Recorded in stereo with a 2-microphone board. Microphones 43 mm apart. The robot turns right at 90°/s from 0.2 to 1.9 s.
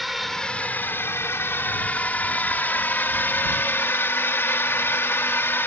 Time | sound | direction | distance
0.0 | a drone | centre (ahead or behind) | ?